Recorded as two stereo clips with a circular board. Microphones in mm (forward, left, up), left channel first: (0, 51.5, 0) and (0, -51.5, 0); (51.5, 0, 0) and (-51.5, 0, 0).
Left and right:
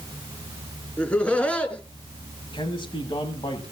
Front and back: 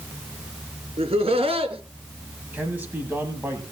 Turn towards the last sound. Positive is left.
turn(degrees=110)